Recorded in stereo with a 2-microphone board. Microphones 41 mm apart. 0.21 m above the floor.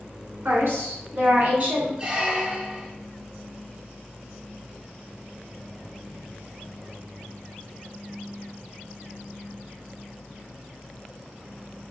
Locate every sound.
0.5 s a woman speaking: 60° right (ahead or behind), 1.8 m; by 1.9 s 40° right (ahead or behind), 1.7 m
2.0 s a squeak: 20° right (ahead or behind), 0.8 m